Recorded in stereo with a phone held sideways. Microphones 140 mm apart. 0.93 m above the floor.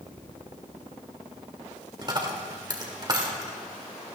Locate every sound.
2.0 s a dropped coin: 30° right (ahead or behind), 1.4 m